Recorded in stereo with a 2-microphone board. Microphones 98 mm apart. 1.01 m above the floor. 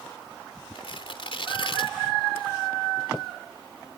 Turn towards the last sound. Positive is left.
turn(degrees=65)  # may be behind; listen again after turning